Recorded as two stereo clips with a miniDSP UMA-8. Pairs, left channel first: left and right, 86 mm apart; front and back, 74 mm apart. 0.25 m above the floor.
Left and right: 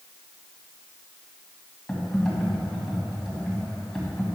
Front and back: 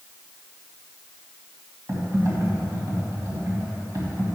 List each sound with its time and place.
1.9 s typing on a keyboard: 175° left, 2 m